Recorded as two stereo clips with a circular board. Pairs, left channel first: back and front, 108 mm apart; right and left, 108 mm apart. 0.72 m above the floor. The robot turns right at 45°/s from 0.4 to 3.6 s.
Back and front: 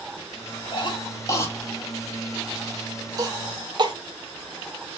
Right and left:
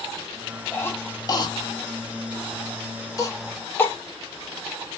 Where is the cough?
155° right, 0.7 m; by 3.9 s 25° right, 0.7 m.